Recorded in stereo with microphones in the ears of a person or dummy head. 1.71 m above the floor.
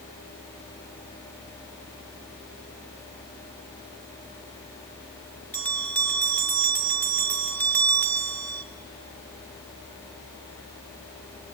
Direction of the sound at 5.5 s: 5° left (ahead or behind).